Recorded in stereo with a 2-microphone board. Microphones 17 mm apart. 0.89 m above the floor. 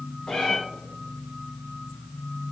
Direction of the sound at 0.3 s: 55° left (ahead or behind).